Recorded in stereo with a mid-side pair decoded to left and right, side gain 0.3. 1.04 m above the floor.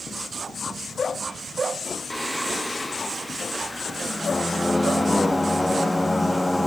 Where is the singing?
15° left, 0.9 m.